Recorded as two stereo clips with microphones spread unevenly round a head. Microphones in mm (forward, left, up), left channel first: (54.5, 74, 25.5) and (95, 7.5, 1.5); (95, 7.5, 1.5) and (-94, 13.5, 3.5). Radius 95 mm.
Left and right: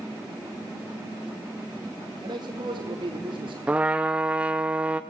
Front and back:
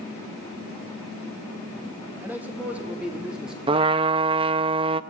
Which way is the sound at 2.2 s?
100° right.